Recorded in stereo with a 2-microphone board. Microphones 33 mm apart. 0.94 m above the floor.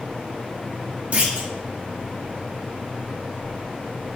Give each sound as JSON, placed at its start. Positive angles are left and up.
{"t": 1.1, "sound": "a clunk", "side_deg": -45, "distance_m": 1.3}